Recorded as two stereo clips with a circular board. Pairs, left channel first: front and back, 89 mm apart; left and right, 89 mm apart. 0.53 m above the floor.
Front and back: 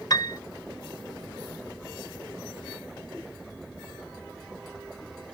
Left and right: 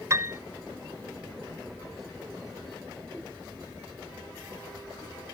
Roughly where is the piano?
Ahead right.